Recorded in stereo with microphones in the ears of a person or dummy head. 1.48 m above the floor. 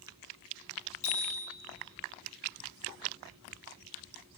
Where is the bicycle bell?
35° left (ahead or behind), 8 m.